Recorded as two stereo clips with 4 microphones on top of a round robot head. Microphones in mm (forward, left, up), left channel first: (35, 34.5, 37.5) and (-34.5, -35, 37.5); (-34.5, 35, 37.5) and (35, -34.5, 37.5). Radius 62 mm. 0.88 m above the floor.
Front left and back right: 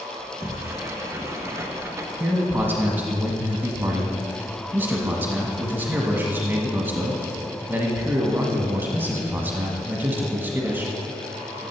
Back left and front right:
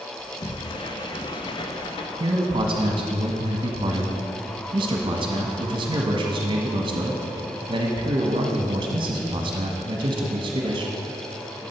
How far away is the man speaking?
About 1.2 m.